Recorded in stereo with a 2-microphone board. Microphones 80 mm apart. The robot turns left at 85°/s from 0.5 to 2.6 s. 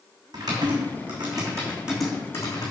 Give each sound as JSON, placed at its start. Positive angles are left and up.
{"t": 0.3, "sound": "typing on a keyboard", "side_deg": -50, "distance_m": 3.0}